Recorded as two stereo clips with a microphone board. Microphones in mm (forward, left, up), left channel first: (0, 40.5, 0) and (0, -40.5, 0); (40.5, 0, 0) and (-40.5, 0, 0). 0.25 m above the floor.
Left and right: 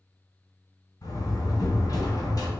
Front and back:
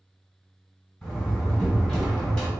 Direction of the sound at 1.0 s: 70° left.